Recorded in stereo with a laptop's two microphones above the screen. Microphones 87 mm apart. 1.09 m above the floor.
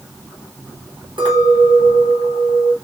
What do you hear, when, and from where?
1.2 s a clink: 80° right, 1.0 m